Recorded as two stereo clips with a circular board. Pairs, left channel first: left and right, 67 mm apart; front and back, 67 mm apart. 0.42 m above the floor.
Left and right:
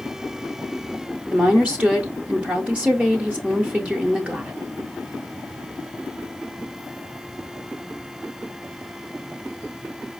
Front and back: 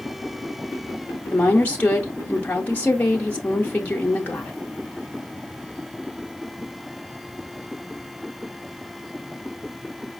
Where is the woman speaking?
40° right, 0.8 m.